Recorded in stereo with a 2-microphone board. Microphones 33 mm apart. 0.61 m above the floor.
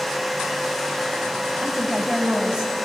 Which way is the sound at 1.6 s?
10° right (ahead or behind).